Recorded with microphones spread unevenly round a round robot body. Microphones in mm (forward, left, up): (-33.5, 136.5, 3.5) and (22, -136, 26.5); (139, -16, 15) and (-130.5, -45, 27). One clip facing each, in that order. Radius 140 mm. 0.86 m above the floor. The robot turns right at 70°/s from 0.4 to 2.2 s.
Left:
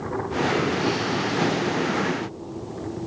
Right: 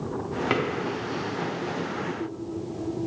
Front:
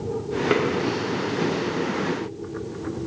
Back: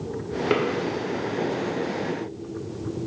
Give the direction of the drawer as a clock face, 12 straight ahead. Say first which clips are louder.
Right 1 dB, front 1 dB; 3 o'clock.